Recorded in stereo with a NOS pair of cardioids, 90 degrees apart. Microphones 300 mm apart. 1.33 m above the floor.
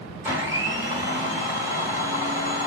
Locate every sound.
0.2 s a blender: 10° right, 2 m